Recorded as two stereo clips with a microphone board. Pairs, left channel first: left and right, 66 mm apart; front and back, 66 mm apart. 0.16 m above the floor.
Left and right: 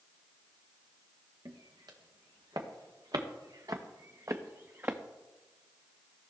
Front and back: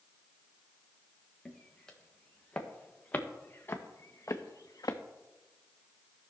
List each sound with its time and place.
1.4 s footsteps: 85° right, 2.5 m; by 5.0 s 25° right, 1.0 m